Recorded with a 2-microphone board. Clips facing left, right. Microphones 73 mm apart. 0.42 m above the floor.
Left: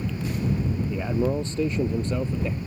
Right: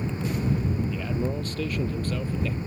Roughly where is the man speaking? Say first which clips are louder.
Left 4 dB; left.